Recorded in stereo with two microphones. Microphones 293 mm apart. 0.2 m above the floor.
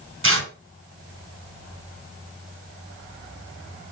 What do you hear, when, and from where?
0.2 s tearing paper: 45° right (ahead or behind), 2.5 m